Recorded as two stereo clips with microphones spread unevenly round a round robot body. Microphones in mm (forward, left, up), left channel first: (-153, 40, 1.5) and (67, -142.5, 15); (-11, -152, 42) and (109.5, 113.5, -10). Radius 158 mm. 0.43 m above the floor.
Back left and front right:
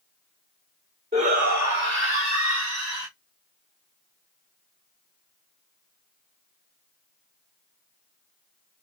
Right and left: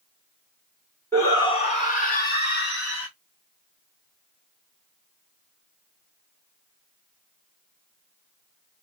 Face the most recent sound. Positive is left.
turn(degrees=-65)